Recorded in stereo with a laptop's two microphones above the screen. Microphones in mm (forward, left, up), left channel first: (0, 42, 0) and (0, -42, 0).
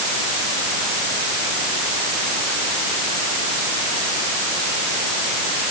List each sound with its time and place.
Only background noise.